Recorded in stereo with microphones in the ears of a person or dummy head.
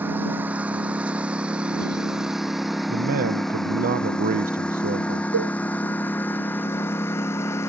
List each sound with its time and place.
0.0 s a lawn mower: 10° right (ahead or behind); by 7.7 s 15° left (ahead or behind)
2.9 s a man speaking: 45° right (ahead or behind)
5.3 s a cowbell: 85° right